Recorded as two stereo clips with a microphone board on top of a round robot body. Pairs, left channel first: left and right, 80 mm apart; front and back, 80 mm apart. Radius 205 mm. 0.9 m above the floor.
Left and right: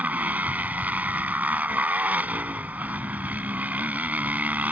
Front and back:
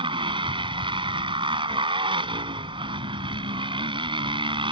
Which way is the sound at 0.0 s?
165° right.